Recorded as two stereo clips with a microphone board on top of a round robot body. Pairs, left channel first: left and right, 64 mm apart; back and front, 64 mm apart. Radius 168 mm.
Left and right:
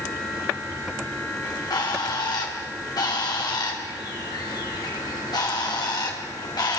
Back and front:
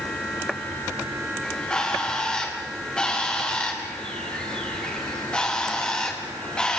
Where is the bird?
105° left, 2.5 m.